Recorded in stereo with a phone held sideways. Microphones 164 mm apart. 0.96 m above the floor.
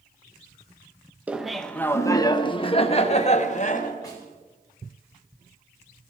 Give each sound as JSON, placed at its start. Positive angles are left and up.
{"t": 1.3, "sound": "laughter", "side_deg": -10, "distance_m": 0.8}
{"t": 4.0, "sound": "a snare drum", "side_deg": 20, "distance_m": 4.0}